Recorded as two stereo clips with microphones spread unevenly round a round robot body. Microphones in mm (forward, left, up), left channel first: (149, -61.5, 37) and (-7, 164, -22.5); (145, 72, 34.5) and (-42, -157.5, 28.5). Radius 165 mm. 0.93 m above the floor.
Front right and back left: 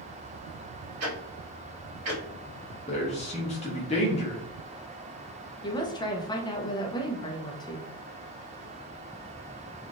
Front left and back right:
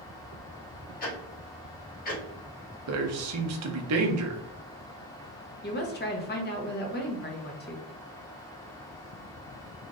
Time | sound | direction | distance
1.0 | ticking | 115° left | 1.4 m
2.9 | a man speaking | 130° right | 0.7 m
5.6 | a woman speaking | 30° left | 0.8 m